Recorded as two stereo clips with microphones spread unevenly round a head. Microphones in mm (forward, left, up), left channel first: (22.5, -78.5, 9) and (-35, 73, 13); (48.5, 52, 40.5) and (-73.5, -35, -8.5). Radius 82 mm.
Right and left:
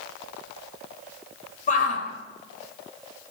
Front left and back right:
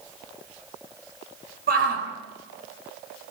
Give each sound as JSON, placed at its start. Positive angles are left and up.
{"t": 1.7, "sound": "a shout", "azimuth_deg": -115, "distance_m": 4.5}